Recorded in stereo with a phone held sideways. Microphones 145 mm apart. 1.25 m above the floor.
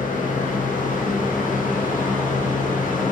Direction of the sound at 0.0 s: 65° left (ahead or behind).